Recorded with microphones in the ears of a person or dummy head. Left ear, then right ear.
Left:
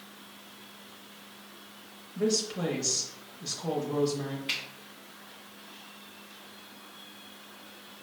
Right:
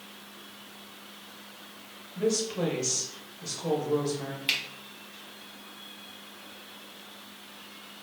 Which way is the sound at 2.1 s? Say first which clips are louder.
Right 1 dB; 5° left (ahead or behind).